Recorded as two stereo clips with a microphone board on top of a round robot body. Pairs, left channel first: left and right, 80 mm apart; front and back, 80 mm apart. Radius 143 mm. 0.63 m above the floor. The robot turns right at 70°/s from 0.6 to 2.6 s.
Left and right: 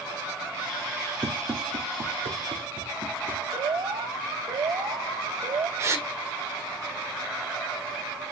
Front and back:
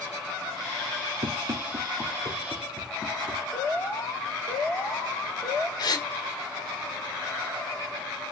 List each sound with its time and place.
1.2 s running footsteps: 155° right, 1.8 m; by 3.4 s 70° right, 3 m
3.5 s an alarm: 70° right, 4.5 m
5.8 s a gasp: 35° right, 2.5 m